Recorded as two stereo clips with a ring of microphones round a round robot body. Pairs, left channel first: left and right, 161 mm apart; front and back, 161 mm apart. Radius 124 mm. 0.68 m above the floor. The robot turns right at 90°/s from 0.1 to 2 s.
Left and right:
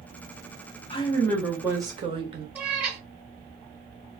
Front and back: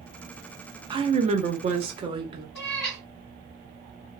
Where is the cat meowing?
10° right, 1.4 m.